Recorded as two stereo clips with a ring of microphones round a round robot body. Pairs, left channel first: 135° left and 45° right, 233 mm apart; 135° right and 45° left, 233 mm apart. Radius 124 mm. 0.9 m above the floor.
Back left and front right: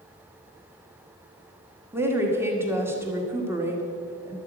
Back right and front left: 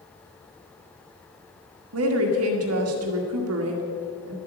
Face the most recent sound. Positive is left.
turn(degrees=35)